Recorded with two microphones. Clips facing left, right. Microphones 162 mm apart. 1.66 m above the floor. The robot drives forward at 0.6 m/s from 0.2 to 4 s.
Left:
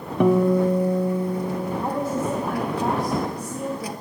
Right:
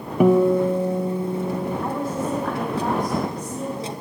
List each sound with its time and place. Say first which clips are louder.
0.2 s a guitar: right 2 dB; 10° right (ahead or behind), 0.7 m; by 1.8 s 5° right (ahead or behind), 1.5 m
1.8 s a woman speaking: left 1 dB; 20° left (ahead or behind), 1.4 m; by 3.9 s 10° left (ahead or behind), 2.5 m